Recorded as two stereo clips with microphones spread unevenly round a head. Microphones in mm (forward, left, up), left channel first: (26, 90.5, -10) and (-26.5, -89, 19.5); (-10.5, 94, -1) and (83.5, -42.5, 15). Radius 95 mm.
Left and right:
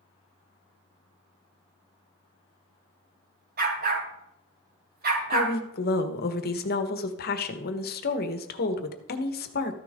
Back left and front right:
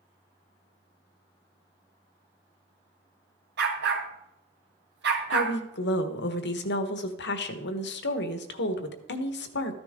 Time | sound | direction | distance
3.6 | a dog barking | 70° right | 2.5 m
5.3 | a woman speaking | 115° left | 1.4 m